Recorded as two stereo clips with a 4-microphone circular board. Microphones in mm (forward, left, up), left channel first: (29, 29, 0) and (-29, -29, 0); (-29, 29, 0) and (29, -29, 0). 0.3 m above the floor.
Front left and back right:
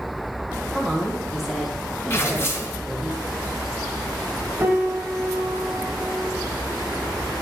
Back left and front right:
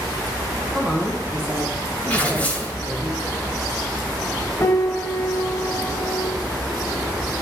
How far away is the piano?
About 0.7 m.